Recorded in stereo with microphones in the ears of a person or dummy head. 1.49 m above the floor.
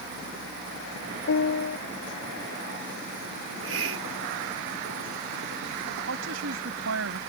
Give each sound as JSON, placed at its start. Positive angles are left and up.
{"t": 1.3, "sound": "a piano", "side_deg": 65}
{"t": 3.4, "sound": "a hiss", "side_deg": -75}
{"t": 6.1, "sound": "a woman speaking", "side_deg": -75}